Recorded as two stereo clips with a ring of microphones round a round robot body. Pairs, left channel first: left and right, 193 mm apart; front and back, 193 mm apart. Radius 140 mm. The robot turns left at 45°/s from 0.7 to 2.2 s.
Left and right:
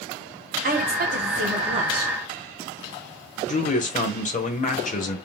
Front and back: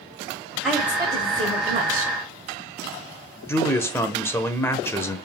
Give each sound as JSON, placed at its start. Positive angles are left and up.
{"t": 0.6, "sound": "a woman speaking", "azimuth_deg": -95, "distance_m": 1.9}
{"t": 3.5, "sound": "a man speaking", "azimuth_deg": 70, "distance_m": 1.0}